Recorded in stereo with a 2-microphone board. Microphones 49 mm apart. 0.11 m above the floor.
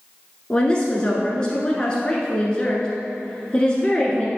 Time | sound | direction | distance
0.5 | a woman speaking | 20° left (ahead or behind) | 1.1 m